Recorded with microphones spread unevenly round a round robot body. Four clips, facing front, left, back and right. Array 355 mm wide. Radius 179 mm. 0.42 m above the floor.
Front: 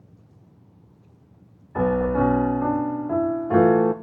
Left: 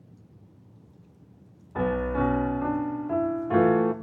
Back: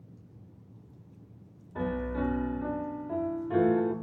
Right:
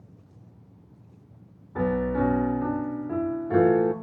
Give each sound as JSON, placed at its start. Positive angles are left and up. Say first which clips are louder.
{"t": 1.8, "sound": "a piano", "louder": "right 1 dB, front 11 dB", "azimuth_deg": -5, "distance_m": 0.5}